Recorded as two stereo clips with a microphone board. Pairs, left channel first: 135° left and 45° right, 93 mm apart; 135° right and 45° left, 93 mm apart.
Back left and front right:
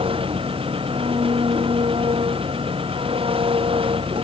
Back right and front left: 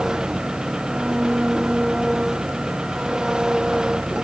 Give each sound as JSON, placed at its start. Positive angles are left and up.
{"t": 0.0, "sound": "an engine running", "azimuth_deg": -40}